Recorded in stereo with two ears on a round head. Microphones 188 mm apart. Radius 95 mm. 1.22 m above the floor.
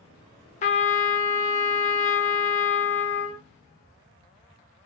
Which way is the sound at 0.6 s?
35° left (ahead or behind).